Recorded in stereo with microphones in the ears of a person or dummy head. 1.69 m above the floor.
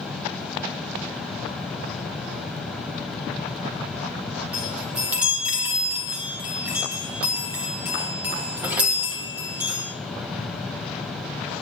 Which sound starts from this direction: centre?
A chime, at 4.5 s.